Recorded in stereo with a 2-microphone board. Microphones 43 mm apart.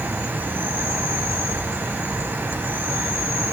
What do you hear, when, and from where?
0.0 s an insect: 65° right (ahead or behind), 1.0 m